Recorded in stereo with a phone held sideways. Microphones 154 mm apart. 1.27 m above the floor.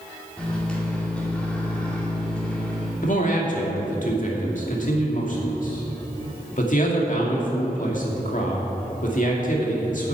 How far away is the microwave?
About 2.5 m.